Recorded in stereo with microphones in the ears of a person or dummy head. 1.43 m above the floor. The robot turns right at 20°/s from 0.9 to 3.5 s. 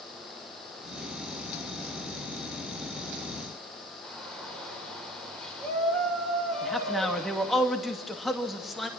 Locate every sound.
4.0 s a shout: 5° left (ahead or behind), 6.5 m
6.6 s a man speaking: centre (ahead or behind), 2.5 m